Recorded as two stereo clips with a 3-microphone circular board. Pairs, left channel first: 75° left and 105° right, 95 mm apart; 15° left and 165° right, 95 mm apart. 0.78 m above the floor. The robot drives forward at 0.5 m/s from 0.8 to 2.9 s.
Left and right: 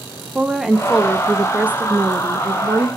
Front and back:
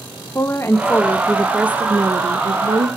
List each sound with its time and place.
0.3 s a woman speaking: 20° right, 0.6 m; by 2.9 s 170° right, 0.9 m